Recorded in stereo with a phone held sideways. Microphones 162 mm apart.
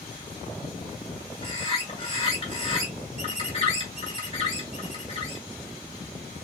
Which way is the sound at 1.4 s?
35° left (ahead or behind).